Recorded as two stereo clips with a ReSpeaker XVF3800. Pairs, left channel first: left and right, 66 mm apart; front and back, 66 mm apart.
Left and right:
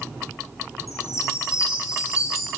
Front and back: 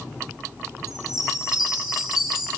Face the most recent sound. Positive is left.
turn(degrees=95)